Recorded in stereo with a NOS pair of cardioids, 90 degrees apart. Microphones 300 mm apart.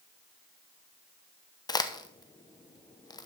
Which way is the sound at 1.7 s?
15° left.